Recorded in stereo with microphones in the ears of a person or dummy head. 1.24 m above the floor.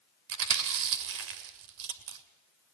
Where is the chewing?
75° right (ahead or behind), 2.5 m.